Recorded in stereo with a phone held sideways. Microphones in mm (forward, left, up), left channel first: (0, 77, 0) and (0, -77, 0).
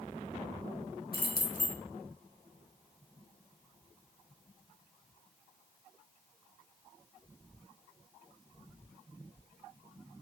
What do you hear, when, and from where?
1.1 s keys jangling: 75° left (ahead or behind), 1.0 m